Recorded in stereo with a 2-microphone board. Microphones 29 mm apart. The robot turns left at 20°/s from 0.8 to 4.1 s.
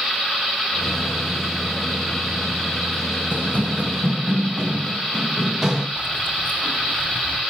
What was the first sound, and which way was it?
Running footsteps, 75° right (ahead or behind).